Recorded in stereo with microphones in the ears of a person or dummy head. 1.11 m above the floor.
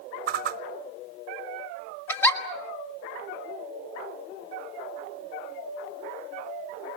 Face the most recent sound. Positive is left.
turn(degrees=15)  # may be behind; listen again after turning